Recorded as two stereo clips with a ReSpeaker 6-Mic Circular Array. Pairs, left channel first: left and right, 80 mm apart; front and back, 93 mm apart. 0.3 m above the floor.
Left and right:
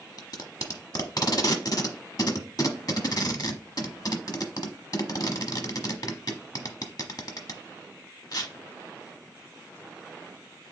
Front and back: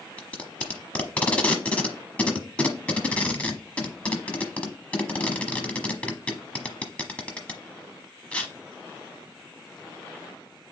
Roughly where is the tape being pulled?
Left.